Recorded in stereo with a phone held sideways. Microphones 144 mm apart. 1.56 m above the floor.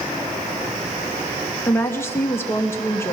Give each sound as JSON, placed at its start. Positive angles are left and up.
{"t": 1.7, "sound": "a woman speaking", "side_deg": 15, "distance_m": 2.5}